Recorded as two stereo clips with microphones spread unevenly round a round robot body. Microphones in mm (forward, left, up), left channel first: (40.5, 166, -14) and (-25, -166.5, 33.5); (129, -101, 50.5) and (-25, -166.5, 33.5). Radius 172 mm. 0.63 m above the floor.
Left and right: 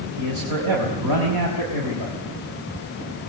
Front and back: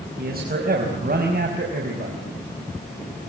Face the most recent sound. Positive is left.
turn(degrees=-135)